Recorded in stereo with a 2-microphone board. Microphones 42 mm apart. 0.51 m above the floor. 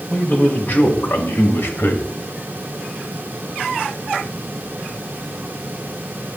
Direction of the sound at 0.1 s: 35° left (ahead or behind).